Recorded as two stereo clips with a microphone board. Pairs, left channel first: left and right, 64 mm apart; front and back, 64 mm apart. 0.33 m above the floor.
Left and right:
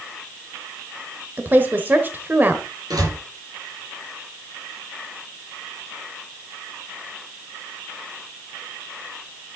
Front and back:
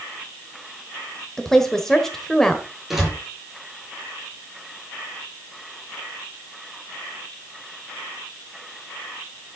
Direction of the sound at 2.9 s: 95° right.